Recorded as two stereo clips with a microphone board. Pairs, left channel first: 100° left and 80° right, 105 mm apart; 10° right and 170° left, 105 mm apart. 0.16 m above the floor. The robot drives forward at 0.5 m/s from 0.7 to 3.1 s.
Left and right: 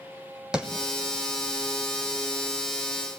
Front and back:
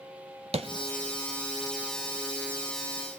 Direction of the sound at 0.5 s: 160° right.